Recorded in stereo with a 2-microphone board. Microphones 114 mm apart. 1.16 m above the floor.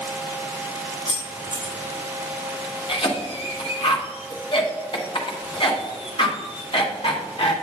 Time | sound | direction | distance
1.1 | keys jangling | 75° right (ahead or behind) | 3 m
2.9 | a cough | 50° left (ahead or behind) | 1.3 m